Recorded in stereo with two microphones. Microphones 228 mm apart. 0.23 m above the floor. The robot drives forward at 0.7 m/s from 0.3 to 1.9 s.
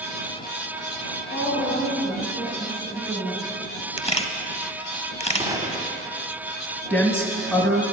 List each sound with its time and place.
1.3 s a woman speaking: 55° left (ahead or behind), 3 m; by 3.5 s 60° left (ahead or behind), 3 m
4.0 s a camera shutter: 25° left (ahead or behind), 0.5 m
5.4 s a gunshot: 15° right (ahead or behind), 0.8 m
6.9 s a woman speaking: 10° left (ahead or behind), 1.1 m